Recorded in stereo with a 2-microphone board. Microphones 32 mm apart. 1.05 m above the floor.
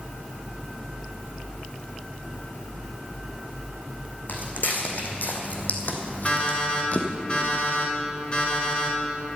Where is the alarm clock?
40° left (ahead or behind), 5 m.